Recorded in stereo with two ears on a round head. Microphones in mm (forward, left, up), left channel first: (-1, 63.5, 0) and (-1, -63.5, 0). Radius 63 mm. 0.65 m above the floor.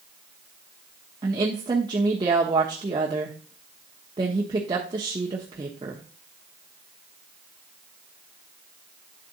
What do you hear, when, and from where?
1.2 s a woman speaking: 30° right (ahead or behind), 1.0 m